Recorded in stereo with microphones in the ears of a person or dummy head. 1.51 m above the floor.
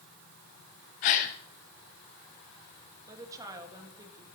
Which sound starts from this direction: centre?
A woman speaking, at 3.1 s.